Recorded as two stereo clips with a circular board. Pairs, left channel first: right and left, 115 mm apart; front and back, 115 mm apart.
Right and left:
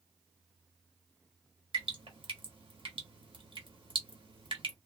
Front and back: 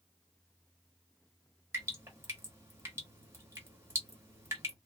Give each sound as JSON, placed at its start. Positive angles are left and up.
{"t": 1.7, "sound": "dripping", "azimuth_deg": 115, "distance_m": 1.1}